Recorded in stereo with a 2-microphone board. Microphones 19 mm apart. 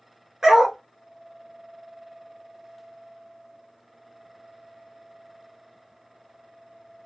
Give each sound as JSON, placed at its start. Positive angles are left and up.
{"t": 0.4, "sound": "a dog barking", "side_deg": -30, "distance_m": 1.3}